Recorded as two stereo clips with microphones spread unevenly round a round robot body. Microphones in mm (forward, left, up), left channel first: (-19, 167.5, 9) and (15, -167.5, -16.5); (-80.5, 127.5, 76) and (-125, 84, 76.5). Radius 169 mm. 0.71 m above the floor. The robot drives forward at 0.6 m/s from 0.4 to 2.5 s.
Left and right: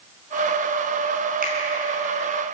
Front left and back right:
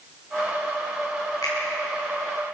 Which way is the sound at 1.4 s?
15° right.